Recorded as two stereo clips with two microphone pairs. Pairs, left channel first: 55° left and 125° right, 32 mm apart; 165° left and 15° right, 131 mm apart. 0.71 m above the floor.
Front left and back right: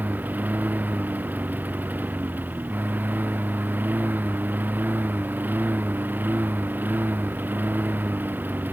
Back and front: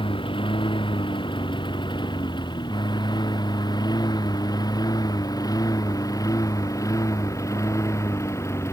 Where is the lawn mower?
145° right; by 8.7 s 125° right.